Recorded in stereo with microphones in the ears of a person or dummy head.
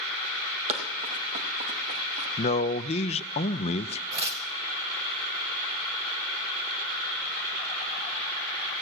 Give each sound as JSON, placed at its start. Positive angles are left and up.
{"t": 0.7, "sound": "running footsteps", "side_deg": -35, "distance_m": 2.0}
{"t": 2.4, "sound": "a man speaking", "side_deg": 30, "distance_m": 0.5}
{"t": 4.1, "sound": "tearing paper", "side_deg": -30, "distance_m": 0.9}